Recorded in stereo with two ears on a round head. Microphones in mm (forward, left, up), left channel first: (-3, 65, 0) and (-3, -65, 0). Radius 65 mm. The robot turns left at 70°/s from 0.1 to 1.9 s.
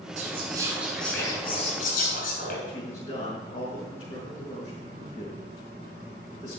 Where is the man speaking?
40° left (ahead or behind), 6 m.